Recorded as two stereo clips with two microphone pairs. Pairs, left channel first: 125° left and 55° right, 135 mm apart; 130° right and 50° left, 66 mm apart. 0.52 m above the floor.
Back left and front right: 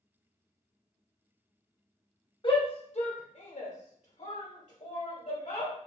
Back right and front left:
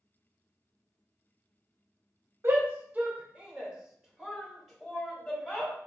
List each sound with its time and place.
2.4 s a shout: 90° left, 1.0 m; by 5.7 s 145° left, 2 m